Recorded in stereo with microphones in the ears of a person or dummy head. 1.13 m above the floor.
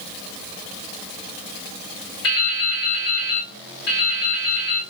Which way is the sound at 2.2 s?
60° left (ahead or behind).